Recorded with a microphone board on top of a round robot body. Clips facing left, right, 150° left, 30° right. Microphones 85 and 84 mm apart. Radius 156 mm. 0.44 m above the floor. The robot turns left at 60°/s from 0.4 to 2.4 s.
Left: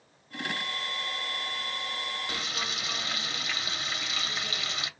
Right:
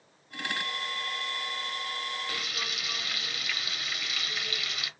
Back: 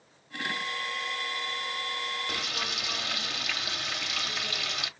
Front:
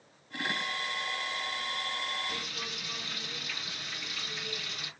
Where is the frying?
155° left, 0.8 m; by 4.9 s 150° left, 0.8 m.